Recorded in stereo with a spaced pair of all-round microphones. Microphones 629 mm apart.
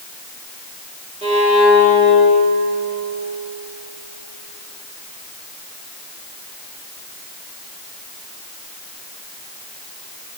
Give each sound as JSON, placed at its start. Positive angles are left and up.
{"t": 1.2, "sound": "a violin", "side_deg": -10, "distance_m": 1.6}